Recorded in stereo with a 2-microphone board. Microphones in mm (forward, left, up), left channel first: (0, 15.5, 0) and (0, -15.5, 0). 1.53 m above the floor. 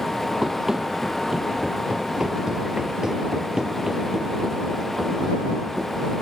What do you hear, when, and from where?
0.4 s running footsteps: 15° right (ahead or behind); by 6.1 s 10° right (ahead or behind)